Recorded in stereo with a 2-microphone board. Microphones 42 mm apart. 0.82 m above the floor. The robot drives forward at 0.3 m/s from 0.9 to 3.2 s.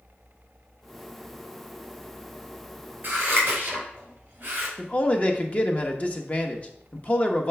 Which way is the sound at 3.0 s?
40° right (ahead or behind).